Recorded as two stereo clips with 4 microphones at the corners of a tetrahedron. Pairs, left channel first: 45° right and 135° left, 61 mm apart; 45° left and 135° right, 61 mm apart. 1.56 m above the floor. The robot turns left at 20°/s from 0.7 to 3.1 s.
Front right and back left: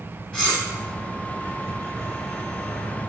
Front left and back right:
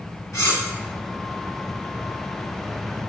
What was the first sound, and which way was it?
Cutlery clinking, 35° left.